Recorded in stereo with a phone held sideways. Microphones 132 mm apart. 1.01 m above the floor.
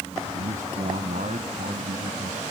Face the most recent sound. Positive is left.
turn(degrees=-85)